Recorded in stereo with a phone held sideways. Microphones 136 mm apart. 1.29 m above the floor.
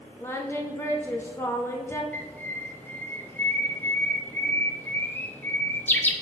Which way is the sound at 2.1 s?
15° left (ahead or behind).